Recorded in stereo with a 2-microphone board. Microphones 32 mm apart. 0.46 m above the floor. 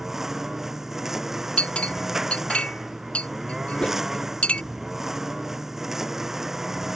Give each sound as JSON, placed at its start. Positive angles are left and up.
{"t": 0.0, "sound": "a lawn mower", "side_deg": -10}
{"t": 1.6, "sound": "a clink", "side_deg": 40}
{"t": 3.8, "sound": "a whoosh", "side_deg": 40}